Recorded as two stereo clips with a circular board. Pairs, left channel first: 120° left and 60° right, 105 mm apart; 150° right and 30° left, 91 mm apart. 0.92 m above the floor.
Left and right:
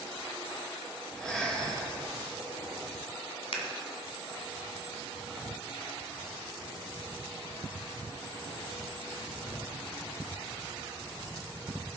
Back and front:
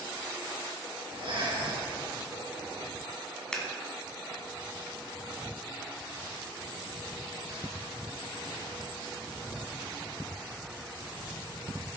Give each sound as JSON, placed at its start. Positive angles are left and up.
{"t": 1.1, "sound": "breathing", "azimuth_deg": 40, "distance_m": 3.0}
{"t": 3.5, "sound": "scissors", "azimuth_deg": 130, "distance_m": 1.7}